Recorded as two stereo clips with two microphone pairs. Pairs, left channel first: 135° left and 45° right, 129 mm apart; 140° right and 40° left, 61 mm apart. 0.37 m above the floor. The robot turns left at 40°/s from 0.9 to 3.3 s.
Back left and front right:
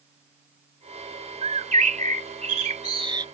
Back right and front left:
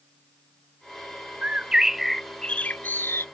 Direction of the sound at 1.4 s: 25° right.